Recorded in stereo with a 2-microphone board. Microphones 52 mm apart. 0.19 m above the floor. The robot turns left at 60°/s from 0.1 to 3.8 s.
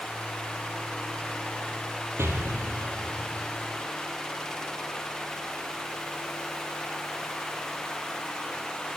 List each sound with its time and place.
2.2 s an explosion: 55° right (ahead or behind), 1.3 m; by 3.5 s 50° right (ahead or behind), 1.3 m